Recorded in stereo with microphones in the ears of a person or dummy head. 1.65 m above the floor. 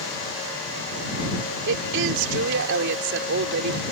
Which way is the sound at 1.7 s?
65° right (ahead or behind).